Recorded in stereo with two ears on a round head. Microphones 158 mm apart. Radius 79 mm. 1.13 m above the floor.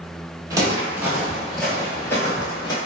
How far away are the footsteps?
About 1.2 m.